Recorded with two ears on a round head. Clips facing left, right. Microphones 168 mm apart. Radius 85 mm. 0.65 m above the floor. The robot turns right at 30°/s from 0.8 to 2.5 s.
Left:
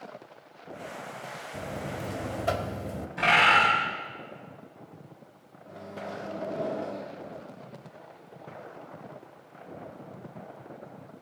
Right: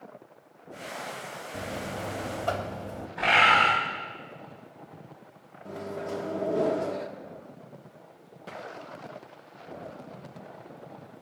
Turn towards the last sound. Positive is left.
turn(degrees=-60)  # may be behind; listen again after turning